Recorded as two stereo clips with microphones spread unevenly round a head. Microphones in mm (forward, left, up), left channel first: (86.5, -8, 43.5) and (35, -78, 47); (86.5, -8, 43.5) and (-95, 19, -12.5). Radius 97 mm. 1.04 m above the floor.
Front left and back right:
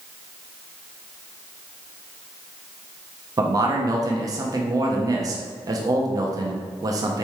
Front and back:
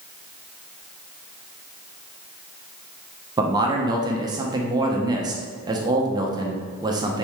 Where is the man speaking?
155° right, 0.6 m.